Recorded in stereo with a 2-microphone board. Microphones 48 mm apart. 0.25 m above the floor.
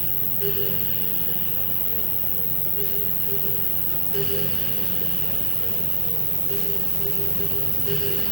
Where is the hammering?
I don't hear hammering.